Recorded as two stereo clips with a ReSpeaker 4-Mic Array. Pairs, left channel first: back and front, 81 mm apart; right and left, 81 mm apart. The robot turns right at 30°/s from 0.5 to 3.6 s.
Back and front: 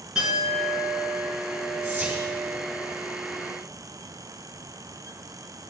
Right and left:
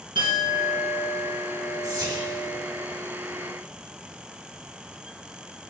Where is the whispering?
75° left, 2.5 m; by 2.2 s 85° left, 2.5 m.